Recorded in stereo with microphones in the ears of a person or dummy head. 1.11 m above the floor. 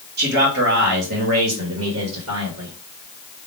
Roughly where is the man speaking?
Right.